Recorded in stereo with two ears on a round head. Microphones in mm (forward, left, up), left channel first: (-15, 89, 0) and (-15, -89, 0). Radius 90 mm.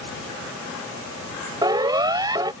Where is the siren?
20° right (ahead or behind).